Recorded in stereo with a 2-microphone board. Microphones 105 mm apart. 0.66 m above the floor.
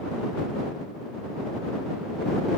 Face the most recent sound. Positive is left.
No sound to turn to.